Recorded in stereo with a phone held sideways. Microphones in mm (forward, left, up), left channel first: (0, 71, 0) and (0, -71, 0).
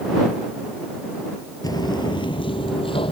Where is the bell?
I don't hear a bell.